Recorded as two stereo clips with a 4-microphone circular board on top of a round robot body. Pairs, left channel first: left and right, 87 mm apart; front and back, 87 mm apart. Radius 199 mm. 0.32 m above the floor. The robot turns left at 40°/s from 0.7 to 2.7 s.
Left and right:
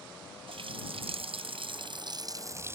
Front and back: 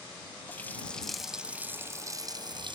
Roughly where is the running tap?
Right.